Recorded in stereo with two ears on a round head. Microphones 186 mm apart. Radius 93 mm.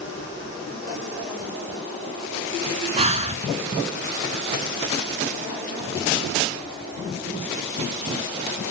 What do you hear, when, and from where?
3.0 s breathing: 30° right (ahead or behind), 0.7 m